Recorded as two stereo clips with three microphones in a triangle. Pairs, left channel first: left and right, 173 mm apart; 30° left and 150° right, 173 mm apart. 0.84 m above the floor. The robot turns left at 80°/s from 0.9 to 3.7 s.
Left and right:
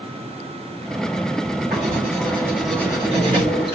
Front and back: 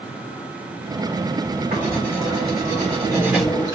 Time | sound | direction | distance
1.7 | writing | 105° right | 3 m